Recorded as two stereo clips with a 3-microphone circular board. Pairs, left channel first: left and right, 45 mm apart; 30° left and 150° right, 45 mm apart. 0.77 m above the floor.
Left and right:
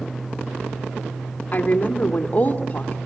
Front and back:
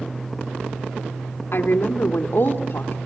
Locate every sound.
1.5 s a woman speaking: 40° left, 2.0 m